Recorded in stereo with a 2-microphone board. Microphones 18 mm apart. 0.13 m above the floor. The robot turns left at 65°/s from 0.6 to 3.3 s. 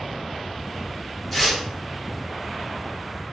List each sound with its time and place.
1.3 s tearing paper: 5° left (ahead or behind), 0.9 m; by 1.6 s 15° left (ahead or behind), 0.9 m